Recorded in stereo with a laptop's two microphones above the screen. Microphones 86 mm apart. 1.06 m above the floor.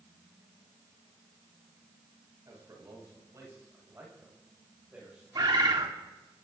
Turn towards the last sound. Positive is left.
turn(degrees=-55)  # may be behind; listen again after turning